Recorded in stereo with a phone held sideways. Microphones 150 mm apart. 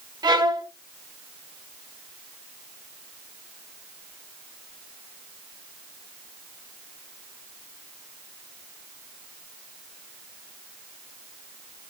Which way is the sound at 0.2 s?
25° right (ahead or behind).